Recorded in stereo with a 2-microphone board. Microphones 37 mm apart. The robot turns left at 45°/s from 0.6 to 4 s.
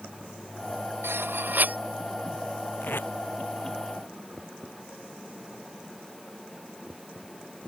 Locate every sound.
1.0 s cutlery clinking: 100° right; by 1.8 s 135° right
2.8 s tape being pulled: 55° left (ahead or behind); by 3.1 s 70° left (ahead or behind)